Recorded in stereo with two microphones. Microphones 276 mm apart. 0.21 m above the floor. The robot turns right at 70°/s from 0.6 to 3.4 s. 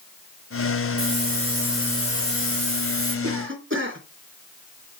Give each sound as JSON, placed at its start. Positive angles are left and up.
{"t": 1.0, "sound": "a hiss", "azimuth_deg": -55, "distance_m": 4.0}
{"t": 3.2, "sound": "a cough", "side_deg": -55, "distance_m": 3.0}